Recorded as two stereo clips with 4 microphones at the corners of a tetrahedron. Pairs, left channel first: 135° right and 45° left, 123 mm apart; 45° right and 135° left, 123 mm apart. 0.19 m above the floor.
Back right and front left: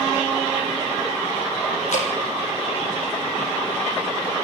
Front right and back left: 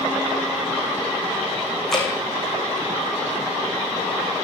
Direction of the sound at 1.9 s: 130° right.